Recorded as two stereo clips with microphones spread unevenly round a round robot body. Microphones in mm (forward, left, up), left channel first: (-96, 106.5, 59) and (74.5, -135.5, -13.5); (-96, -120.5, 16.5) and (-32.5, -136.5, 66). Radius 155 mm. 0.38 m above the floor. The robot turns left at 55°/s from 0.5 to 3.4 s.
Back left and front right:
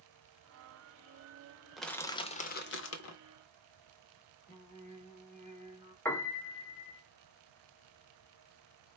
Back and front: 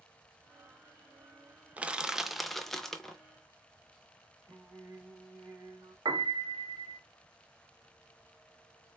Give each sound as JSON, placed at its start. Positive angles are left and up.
{"t": 1.8, "sound": "crushing", "azimuth_deg": -130, "distance_m": 0.6}
{"t": 4.5, "sound": "singing", "azimuth_deg": 60, "distance_m": 0.9}
{"t": 6.0, "sound": "a piano", "azimuth_deg": 25, "distance_m": 0.7}